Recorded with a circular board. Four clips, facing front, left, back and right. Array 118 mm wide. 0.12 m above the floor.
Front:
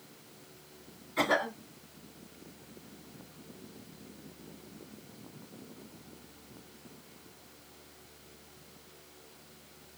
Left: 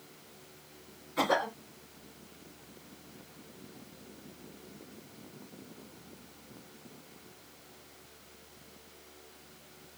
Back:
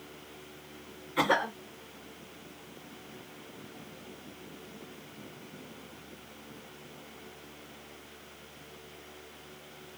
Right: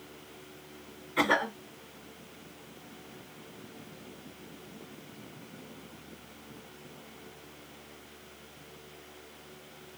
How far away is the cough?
About 1.7 m.